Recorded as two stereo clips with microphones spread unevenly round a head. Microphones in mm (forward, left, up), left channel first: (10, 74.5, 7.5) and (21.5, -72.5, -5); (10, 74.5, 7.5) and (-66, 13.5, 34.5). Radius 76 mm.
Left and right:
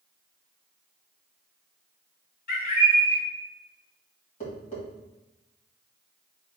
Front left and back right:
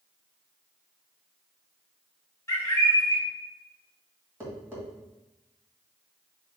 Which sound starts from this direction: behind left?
Tapping, at 4.4 s.